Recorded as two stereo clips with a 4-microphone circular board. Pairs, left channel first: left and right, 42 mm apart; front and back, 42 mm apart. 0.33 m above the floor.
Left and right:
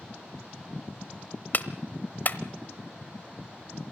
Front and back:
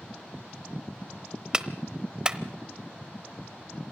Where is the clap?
115° left, 0.9 m.